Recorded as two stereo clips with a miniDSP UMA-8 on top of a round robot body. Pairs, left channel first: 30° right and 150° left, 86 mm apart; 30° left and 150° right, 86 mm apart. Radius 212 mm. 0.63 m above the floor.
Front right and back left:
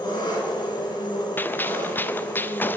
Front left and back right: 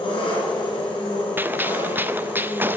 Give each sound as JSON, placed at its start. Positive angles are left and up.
{"t": 0.0, "sound": "an engine running", "azimuth_deg": 10, "distance_m": 3.5}
{"t": 1.4, "sound": "a gunshot", "azimuth_deg": -90, "distance_m": 0.7}